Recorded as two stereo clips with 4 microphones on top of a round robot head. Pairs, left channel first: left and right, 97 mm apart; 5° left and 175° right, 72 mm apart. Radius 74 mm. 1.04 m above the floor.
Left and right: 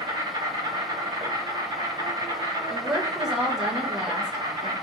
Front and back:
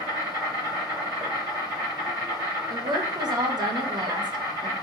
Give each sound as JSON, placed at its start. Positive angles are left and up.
{"t": 0.0, "sound": "an insect", "azimuth_deg": -135, "distance_m": 2.5}
{"t": 2.7, "sound": "a woman speaking", "azimuth_deg": -175, "distance_m": 1.1}